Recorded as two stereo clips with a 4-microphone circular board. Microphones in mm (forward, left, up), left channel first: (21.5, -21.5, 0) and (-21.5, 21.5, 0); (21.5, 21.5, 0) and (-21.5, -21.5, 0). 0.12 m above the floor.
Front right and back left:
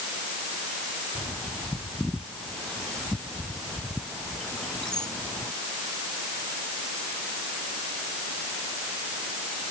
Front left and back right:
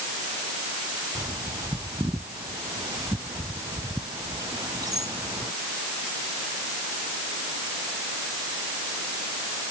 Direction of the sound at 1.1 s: 125° right.